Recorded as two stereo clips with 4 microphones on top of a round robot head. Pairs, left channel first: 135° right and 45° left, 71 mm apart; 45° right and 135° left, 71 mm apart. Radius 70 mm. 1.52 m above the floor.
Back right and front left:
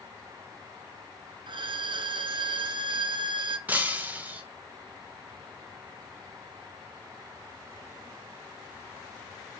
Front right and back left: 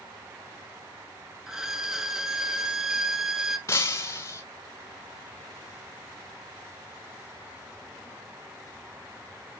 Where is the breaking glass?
10° right, 0.6 m.